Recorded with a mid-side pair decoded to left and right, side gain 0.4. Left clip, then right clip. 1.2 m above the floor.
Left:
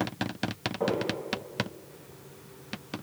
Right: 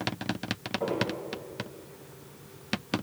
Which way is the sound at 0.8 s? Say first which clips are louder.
Left 2 dB; 55° left.